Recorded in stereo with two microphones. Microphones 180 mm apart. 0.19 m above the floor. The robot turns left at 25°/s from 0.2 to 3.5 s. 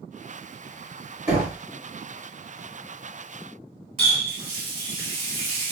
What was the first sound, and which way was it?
Knocking, 25° right (ahead or behind).